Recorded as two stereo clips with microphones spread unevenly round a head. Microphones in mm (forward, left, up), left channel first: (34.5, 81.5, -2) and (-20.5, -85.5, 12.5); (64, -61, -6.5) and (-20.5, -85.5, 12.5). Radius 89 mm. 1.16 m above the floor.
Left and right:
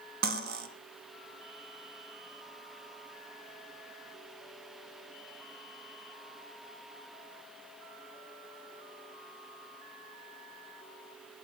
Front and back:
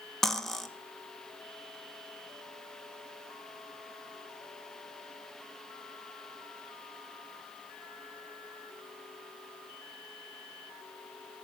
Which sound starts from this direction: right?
Cutlery clinking, at 0.2 s.